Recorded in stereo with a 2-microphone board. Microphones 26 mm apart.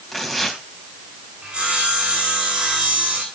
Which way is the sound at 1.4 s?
45° right (ahead or behind).